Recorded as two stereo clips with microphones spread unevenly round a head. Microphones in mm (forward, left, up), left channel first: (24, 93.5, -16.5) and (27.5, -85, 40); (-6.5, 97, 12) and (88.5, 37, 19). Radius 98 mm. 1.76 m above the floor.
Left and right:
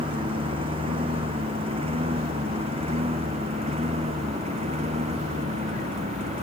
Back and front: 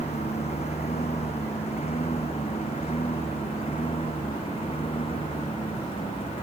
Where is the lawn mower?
155° right; by 6.4 s 145° right.